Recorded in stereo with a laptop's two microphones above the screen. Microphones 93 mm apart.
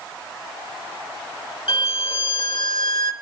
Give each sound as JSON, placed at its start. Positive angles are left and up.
{"t": 1.7, "sound": "a violin", "side_deg": 75, "distance_m": 1.6}